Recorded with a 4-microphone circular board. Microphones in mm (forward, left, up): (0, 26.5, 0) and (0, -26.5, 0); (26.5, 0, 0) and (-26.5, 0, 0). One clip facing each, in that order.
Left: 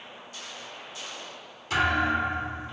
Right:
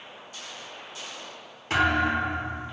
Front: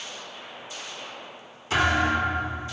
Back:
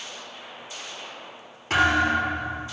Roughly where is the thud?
Behind right.